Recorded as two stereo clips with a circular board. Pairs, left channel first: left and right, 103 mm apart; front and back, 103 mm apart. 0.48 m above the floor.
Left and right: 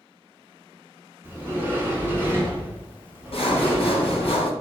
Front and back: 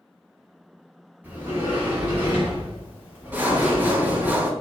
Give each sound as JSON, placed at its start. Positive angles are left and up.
{"t": 1.2, "sound": "a sliding door", "azimuth_deg": -125, "distance_m": 0.8}
{"t": 3.3, "sound": "sawing", "azimuth_deg": 110, "distance_m": 0.5}